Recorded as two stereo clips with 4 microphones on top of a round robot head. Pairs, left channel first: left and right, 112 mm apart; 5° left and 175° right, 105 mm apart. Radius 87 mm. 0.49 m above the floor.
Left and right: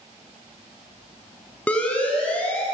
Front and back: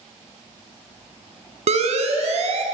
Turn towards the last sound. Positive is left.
turn(degrees=170)